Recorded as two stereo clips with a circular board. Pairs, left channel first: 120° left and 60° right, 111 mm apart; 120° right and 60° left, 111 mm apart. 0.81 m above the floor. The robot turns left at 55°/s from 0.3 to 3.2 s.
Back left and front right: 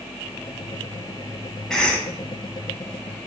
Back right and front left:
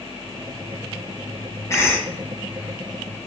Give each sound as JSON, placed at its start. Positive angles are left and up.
{"t": 1.7, "sound": "a cough", "azimuth_deg": -160, "distance_m": 0.7}